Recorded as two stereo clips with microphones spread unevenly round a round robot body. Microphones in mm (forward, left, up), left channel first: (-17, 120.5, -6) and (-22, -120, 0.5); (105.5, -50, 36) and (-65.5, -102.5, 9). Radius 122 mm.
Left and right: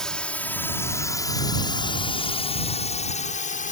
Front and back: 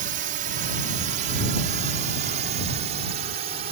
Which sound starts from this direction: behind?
A drone, at 0.0 s.